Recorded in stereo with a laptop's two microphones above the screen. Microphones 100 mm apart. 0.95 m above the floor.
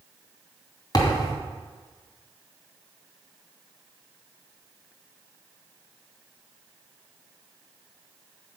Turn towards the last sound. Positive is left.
turn(degrees=40)  # may be behind; listen again after turning